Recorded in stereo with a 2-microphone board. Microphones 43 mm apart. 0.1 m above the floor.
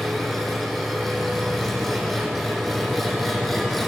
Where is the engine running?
5° left (ahead or behind), 4.5 m.